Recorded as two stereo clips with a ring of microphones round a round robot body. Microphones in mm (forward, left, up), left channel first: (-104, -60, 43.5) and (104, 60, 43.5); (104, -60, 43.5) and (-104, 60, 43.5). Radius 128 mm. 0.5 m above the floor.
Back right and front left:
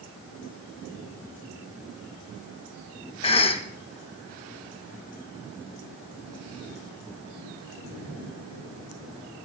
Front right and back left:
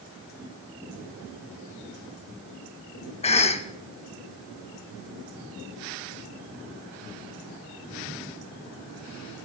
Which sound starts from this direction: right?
A cough, at 3.2 s.